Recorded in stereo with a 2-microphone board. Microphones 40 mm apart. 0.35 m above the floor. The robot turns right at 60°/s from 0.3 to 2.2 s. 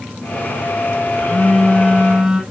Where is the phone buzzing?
130° left, 2.5 m; by 2.4 s 165° right, 2.5 m.